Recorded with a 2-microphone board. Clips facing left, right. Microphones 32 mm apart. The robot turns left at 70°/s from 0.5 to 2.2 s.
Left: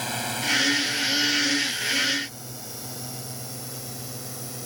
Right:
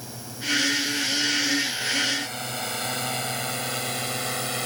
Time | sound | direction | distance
0.0 | a drone | 60° left (ahead or behind) | ?